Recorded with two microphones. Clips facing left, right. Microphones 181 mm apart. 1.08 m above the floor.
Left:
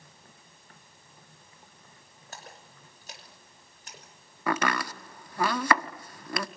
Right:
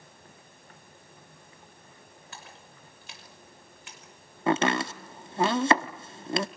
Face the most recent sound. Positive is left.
turn(degrees=-25)  # may be behind; listen again after turning